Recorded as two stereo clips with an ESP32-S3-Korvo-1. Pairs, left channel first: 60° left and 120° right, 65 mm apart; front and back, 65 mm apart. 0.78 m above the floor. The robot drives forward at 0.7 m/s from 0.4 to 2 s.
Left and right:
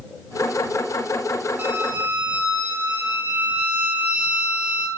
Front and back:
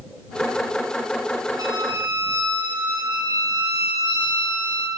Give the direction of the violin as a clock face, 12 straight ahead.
6 o'clock.